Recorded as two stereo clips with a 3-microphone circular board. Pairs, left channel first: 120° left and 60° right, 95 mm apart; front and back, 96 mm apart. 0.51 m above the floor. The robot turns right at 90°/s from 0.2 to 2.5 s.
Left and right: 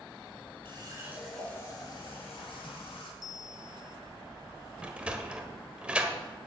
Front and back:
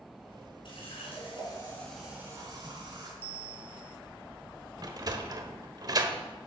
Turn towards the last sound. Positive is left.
turn(degrees=-140)